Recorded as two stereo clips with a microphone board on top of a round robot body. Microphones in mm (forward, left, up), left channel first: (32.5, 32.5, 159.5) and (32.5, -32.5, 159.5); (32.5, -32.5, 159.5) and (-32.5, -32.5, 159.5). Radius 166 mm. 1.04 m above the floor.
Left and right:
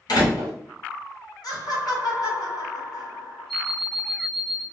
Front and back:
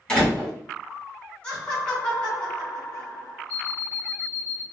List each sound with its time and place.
0.1 s a door slam: 75° left, 1.9 m
1.4 s laughter: 75° left, 1.7 m
3.5 s an alarm clock: 175° right, 1.0 m